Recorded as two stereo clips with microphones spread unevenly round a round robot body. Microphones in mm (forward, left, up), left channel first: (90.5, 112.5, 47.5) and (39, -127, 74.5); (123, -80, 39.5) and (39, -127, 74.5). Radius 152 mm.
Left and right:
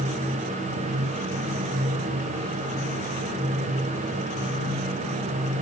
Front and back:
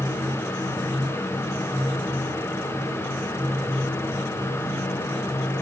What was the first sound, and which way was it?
Only background noise.